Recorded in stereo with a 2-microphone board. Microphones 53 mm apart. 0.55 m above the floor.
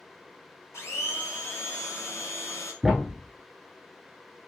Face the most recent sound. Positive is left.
turn(degrees=-10)  # may be behind; listen again after turning